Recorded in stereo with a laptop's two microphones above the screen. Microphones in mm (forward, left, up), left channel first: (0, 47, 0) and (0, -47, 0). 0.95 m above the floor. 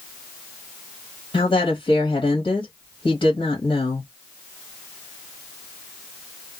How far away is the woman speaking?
About 1.3 m.